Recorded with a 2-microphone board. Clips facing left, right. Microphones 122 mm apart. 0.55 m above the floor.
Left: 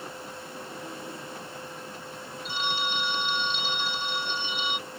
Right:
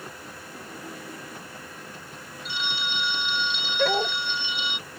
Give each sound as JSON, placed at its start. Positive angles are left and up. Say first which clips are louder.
{"t": 2.5, "sound": "a phone ringing", "louder": "left 2 dB", "side_deg": 50}
{"t": 3.8, "sound": "a dog barking", "louder": "right 10 dB", "side_deg": -85}